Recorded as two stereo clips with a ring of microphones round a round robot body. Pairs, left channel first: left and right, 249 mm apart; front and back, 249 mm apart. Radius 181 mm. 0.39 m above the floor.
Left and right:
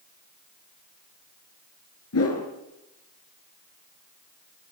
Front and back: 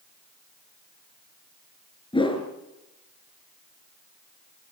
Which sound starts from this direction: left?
A whoosh, at 2.1 s.